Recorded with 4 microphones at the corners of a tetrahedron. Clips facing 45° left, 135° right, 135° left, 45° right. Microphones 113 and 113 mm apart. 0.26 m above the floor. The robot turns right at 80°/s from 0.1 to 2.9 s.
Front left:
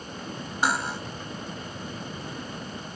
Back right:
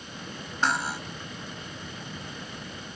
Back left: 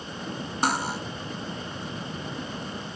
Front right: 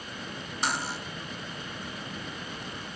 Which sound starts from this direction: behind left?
Cutlery clinking, at 0.6 s.